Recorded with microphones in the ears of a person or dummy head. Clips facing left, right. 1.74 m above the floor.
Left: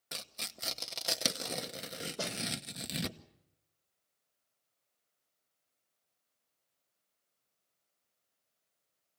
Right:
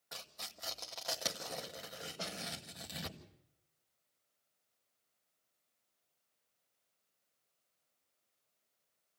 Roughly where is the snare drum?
Left.